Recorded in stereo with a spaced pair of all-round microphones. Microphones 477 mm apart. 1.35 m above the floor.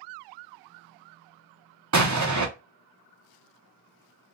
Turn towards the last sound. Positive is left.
turn(degrees=-35)  # may be behind; listen again after turning